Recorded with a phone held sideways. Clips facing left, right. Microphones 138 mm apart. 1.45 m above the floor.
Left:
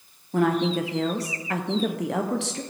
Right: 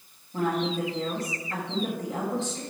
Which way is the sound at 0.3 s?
85° left.